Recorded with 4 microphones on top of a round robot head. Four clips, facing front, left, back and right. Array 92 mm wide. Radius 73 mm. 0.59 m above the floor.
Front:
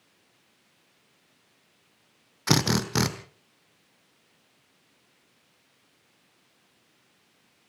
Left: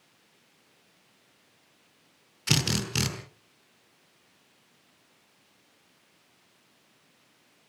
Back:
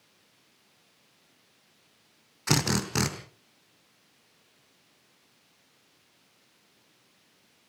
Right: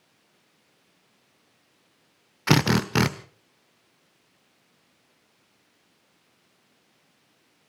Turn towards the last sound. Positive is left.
turn(degrees=-75)